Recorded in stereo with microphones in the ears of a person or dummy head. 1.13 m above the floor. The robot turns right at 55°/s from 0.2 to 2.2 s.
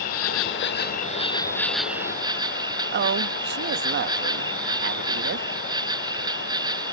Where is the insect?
90° left; by 6.9 s 160° right.